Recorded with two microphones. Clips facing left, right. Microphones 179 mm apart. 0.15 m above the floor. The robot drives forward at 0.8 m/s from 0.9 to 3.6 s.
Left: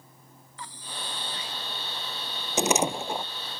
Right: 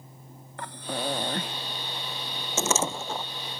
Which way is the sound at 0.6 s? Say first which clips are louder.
Right 10 dB; 60° right (ahead or behind).